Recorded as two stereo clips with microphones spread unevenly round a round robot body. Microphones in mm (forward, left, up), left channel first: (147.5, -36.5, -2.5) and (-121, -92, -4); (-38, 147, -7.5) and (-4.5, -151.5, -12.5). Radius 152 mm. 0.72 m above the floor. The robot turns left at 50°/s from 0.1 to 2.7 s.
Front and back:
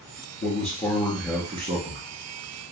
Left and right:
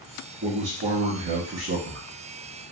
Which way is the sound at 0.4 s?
40° right.